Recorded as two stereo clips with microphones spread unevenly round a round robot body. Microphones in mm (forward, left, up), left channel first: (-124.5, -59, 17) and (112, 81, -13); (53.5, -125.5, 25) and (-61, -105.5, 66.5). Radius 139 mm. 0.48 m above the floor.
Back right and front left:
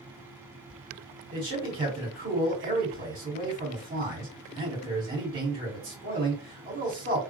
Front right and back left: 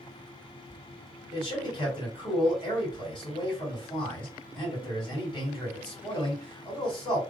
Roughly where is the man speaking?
Ahead.